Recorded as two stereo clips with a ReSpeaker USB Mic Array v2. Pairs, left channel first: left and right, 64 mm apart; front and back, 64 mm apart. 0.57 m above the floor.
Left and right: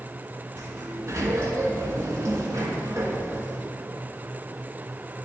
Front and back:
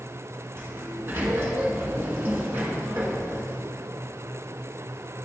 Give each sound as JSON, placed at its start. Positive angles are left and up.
{"t": 0.6, "sound": "a sliding door", "azimuth_deg": -125, "distance_m": 1.5}